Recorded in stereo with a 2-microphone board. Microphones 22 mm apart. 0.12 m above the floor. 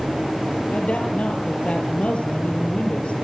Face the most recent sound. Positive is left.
turn(degrees=60)  # may be behind; listen again after turning